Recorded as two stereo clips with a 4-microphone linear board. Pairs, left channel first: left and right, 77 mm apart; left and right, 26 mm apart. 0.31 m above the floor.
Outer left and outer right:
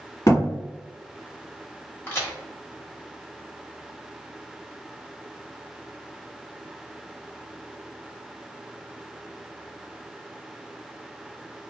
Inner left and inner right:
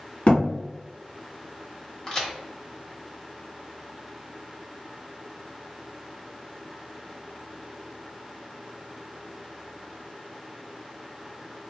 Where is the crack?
30° left (ahead or behind), 1.2 m.